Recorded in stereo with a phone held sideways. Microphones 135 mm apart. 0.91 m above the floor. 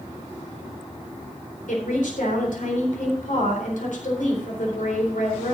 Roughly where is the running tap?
No running tap in this recording.